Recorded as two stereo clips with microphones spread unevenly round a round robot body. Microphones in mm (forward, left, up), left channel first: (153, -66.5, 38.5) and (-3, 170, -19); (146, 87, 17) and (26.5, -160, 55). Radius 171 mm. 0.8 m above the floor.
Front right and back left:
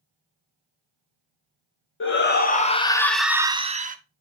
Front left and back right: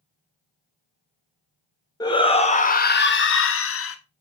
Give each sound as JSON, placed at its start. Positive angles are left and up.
{"t": 2.0, "sound": "a shout", "azimuth_deg": -5, "distance_m": 1.6}